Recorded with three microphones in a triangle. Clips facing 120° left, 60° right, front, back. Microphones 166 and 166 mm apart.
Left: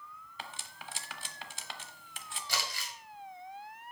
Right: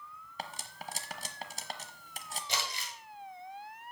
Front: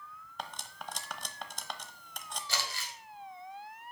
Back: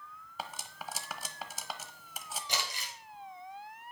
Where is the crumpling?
115° right, 1.9 m.